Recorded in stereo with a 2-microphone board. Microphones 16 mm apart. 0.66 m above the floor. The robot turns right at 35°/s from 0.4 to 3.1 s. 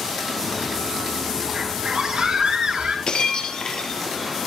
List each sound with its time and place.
1.5 s a scream: 150° right, 9 m; by 3.0 s 100° right, 9 m
3.1 s breaking glass: 75° left (ahead or behind), 3 m